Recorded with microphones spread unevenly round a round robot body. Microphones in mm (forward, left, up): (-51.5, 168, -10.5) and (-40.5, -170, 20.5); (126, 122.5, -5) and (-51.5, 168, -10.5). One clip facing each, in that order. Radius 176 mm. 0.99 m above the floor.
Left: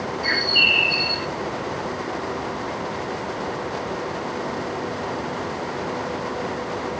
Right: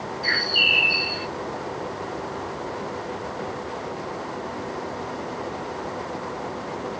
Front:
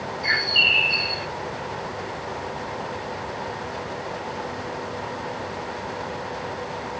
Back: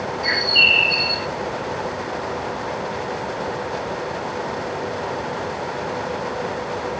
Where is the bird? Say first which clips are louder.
Left 3 dB, back 5 dB; 170° left, 1.0 m.